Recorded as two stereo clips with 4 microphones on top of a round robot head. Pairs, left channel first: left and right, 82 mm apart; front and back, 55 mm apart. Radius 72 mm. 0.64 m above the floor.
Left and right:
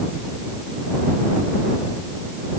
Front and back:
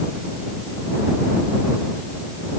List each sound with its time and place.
Only background noise.